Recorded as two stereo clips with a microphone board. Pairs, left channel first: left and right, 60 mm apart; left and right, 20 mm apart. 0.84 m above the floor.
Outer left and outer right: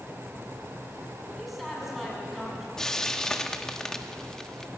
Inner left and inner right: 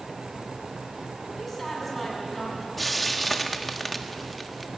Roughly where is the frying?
Centre.